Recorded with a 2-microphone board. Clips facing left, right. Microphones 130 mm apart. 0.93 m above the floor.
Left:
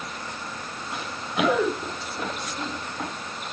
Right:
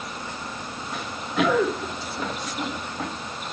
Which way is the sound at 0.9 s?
15° left (ahead or behind).